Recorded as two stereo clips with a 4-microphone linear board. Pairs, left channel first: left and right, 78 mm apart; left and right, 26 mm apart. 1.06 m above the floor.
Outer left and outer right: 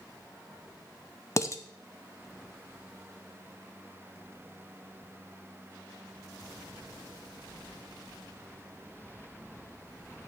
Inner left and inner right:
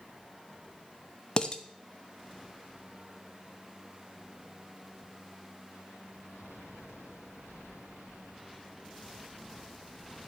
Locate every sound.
1.4 s dishes clattering: 40° left (ahead or behind), 0.7 m